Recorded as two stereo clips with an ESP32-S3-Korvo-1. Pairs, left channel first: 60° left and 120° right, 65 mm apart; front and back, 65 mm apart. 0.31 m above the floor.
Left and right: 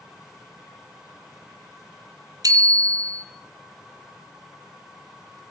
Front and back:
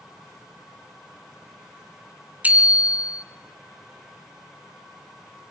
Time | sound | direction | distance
2.4 | a bicycle bell | 115° right | 2.5 m